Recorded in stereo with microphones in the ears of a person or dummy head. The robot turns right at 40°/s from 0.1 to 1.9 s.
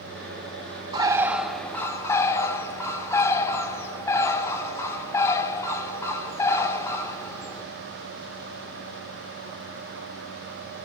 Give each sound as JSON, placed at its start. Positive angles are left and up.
{"t": 0.9, "sound": "a bird", "azimuth_deg": -25, "distance_m": 2.5}